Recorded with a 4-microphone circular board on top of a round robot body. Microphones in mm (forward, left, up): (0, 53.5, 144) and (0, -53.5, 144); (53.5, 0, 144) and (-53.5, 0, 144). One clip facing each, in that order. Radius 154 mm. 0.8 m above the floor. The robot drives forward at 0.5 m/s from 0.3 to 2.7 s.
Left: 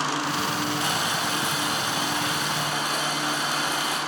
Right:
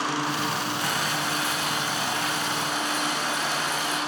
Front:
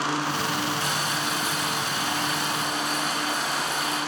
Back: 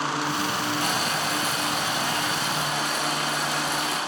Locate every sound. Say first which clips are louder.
0.8 s boiling: left 1 dB, back 2 dB; 155° left, 1.3 m; by 4.0 s 165° left, 2 m